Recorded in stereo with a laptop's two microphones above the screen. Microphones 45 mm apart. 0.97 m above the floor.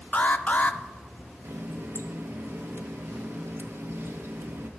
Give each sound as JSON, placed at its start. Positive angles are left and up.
{"t": 0.1, "sound": "an alarm", "side_deg": 35, "distance_m": 0.5}
{"t": 1.4, "sound": "a running tap", "side_deg": -65, "distance_m": 0.8}